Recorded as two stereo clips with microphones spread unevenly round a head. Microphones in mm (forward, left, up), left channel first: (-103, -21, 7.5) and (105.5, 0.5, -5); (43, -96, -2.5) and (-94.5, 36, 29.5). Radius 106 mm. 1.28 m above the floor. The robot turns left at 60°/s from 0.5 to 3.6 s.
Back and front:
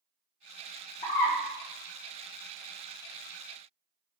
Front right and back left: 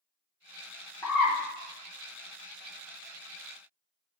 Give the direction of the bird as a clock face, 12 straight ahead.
4 o'clock.